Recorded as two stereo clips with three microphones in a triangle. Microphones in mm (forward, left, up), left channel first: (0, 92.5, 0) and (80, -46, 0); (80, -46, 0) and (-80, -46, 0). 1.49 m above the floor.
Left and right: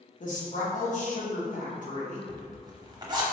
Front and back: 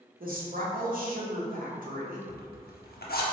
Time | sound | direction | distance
0.2 | a woman speaking | 155° left | 1.0 m
2.3 | a zipper | 5° left | 0.7 m